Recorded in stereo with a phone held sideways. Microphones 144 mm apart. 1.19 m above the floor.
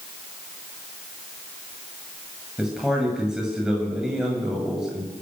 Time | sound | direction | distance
2.6 | a man speaking | 5° right (ahead or behind) | 8 m